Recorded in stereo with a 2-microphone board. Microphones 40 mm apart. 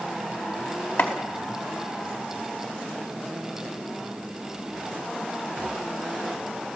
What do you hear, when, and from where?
1.0 s chopping: 65° left (ahead or behind), 4.5 m